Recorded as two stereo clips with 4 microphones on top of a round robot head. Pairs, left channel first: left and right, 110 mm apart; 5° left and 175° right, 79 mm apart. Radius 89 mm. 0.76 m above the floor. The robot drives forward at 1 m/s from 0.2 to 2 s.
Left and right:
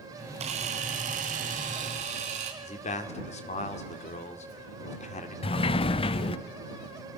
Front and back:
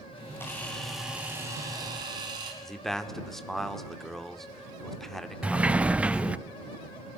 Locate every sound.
0.4 s a camera shutter: 65° right, 1.7 m; by 2.5 s 125° right, 1.8 m
2.6 s a man speaking: 90° left, 1.9 m
5.4 s a sliding door: 110° left, 0.5 m